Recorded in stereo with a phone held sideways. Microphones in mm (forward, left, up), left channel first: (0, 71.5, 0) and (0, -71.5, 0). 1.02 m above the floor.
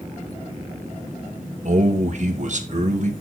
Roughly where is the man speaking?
Right.